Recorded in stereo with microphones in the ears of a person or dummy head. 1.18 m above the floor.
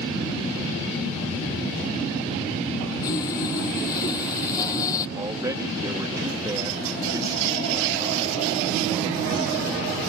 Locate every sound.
3.0 s sawing: 20° left (ahead or behind)
5.2 s a man speaking: 20° right (ahead or behind)